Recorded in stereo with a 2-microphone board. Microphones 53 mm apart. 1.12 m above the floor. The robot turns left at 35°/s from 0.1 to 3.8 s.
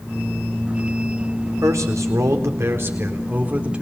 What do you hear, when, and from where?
1.6 s a man speaking: 85° right, 4 m; by 3.8 s 160° right, 4 m